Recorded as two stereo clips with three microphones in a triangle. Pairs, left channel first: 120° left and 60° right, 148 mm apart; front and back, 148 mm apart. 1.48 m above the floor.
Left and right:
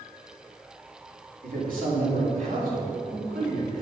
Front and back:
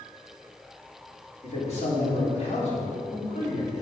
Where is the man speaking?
40° right, 3 m.